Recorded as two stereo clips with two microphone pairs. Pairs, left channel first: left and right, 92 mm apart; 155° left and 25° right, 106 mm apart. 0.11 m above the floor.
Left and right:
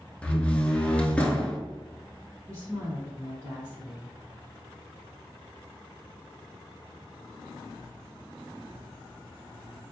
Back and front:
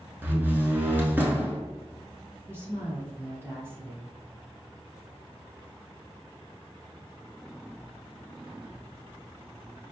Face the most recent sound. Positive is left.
turn(degrees=-80)